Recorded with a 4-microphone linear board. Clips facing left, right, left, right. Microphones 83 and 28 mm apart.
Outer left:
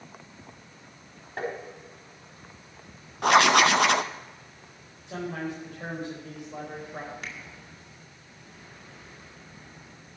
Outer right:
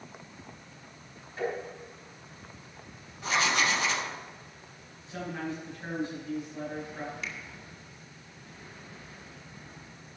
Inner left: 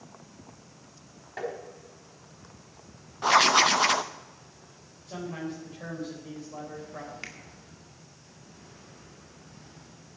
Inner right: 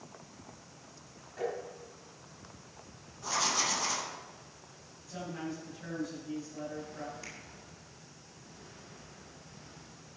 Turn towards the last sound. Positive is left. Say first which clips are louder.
# even, inner left 5 dB
turn(degrees=50)  # may be behind; listen again after turning